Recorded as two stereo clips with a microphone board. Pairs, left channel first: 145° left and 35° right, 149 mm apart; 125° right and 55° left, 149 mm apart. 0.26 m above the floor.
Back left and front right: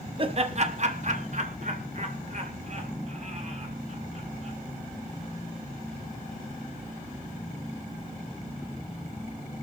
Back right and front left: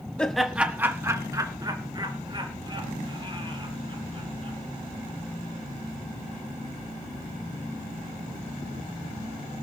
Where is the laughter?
45° right, 1.2 m; by 4.6 s 5° left, 6 m.